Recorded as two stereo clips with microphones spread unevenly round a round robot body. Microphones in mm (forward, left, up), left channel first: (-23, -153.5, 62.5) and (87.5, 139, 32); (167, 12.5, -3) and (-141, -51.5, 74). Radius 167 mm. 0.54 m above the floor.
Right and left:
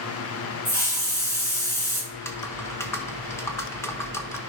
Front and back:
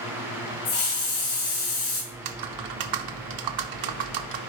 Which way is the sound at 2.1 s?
165° left.